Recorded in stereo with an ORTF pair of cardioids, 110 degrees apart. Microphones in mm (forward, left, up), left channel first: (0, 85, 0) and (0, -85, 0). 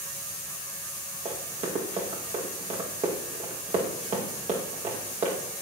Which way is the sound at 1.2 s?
40° right.